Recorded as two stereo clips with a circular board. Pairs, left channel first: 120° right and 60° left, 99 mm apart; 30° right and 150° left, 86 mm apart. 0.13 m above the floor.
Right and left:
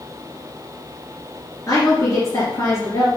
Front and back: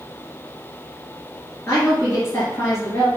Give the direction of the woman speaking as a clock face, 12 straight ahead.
3 o'clock.